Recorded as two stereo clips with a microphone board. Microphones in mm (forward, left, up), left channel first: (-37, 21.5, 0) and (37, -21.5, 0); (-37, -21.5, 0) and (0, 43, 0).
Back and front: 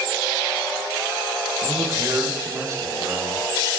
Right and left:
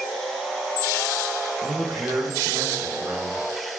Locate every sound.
1.6 s a man speaking: 15° left, 4 m